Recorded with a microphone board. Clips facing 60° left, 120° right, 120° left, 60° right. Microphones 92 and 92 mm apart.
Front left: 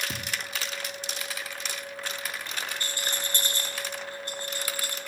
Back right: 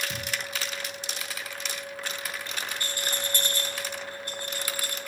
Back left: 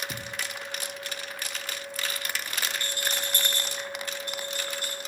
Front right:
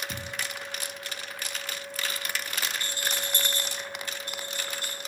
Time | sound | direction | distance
0.1 | a thud | 40° left | 1.3 m
2.8 | a rattle | 5° right | 2.5 m